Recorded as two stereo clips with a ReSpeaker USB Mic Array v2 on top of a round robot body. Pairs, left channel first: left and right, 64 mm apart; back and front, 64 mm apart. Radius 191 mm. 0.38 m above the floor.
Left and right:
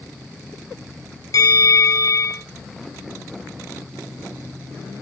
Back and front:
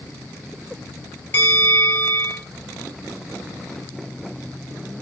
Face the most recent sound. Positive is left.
turn(degrees=120)